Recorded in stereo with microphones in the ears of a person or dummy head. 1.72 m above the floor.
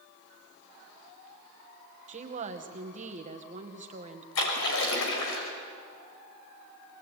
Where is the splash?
75° left (ahead or behind), 6 m.